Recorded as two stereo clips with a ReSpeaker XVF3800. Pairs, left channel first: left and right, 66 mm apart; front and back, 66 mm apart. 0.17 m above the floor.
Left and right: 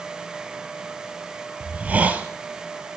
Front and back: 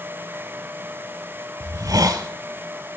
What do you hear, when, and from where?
1.6 s a hiss: 155° right, 0.9 m